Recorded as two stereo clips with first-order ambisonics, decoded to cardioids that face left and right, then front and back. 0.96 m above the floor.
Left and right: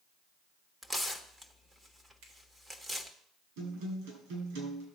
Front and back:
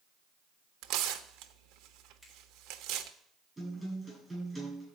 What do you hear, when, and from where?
0.8 s tearing paper: 170° right, 1.0 m
2.2 s a finger snap: 85° right, 4 m
3.6 s a guitar: 95° right, 7.5 m